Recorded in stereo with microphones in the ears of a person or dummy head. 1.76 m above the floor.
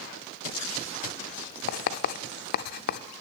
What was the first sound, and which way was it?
Writing, 55° left (ahead or behind).